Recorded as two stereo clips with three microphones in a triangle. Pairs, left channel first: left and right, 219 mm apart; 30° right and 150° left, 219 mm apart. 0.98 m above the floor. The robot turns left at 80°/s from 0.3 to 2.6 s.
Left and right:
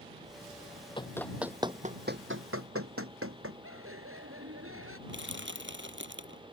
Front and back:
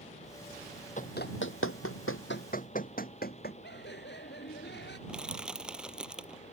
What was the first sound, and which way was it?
Running footsteps, 25° left.